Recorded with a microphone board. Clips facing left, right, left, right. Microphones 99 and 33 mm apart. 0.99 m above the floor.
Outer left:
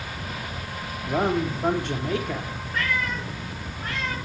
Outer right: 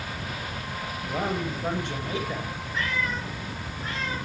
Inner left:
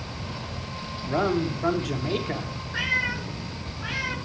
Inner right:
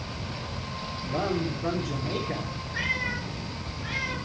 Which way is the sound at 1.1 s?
75° left (ahead or behind).